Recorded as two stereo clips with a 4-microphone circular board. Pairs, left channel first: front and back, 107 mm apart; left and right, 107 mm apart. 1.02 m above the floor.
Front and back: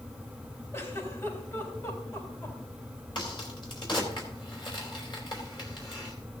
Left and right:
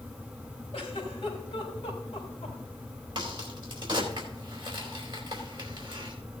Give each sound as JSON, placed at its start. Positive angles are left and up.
{"t": 0.7, "sound": "a giggle", "azimuth_deg": 60, "distance_m": 4.0}
{"t": 3.1, "sound": "a crack", "azimuth_deg": -45, "distance_m": 4.0}